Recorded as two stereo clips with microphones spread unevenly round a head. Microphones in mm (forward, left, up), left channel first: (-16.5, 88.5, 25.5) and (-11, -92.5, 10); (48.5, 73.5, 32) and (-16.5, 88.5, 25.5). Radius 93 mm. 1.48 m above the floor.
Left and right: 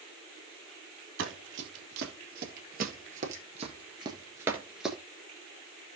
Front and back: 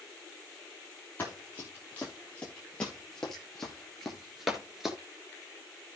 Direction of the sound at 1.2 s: 85° right.